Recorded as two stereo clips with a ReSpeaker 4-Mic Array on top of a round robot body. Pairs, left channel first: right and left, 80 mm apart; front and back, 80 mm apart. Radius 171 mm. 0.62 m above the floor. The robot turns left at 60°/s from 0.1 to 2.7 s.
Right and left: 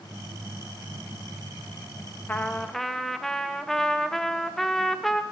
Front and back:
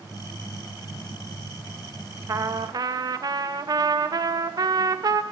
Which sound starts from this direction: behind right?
A trumpet, at 2.3 s.